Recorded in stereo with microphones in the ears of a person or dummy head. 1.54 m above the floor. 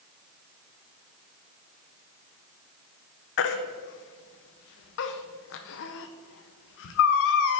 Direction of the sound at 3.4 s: 65° left (ahead or behind).